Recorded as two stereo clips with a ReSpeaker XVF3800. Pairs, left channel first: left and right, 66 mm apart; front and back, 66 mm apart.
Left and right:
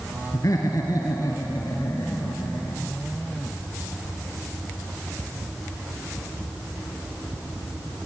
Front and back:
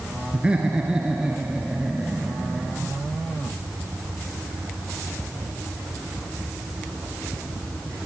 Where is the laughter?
110° left, 2.5 m; by 2.8 s 100° left, 4 m.